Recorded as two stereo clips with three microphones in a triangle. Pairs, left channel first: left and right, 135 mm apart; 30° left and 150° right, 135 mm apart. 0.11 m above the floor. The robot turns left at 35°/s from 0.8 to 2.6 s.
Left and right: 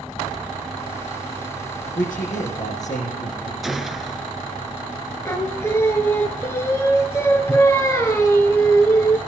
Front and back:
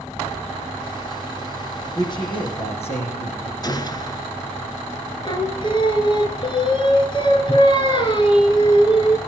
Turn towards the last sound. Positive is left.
turn(degrees=35)